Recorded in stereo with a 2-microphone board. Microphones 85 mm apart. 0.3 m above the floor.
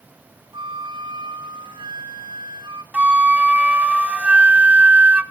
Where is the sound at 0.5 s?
65° right (ahead or behind), 1.1 m.